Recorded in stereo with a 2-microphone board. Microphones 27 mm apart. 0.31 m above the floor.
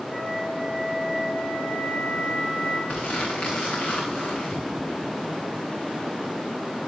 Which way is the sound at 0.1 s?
25° left (ahead or behind).